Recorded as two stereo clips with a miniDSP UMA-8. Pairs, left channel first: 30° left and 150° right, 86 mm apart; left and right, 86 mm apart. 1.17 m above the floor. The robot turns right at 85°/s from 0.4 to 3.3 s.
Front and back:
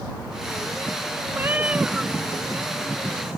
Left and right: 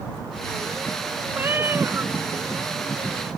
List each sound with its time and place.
1.3 s a cat meowing: 130° right; by 2.1 s 60° right